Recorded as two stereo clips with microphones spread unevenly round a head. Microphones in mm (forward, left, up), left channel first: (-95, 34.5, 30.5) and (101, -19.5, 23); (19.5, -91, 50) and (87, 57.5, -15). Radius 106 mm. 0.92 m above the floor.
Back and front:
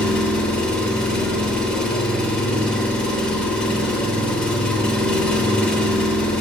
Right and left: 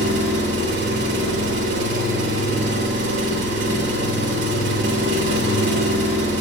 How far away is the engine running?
About 0.7 m.